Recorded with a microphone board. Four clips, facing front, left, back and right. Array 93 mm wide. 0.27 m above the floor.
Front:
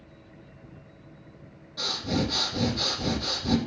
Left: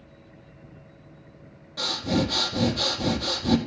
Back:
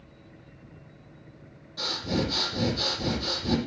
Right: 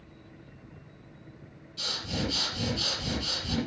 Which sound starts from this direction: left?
Breathing, at 1.8 s.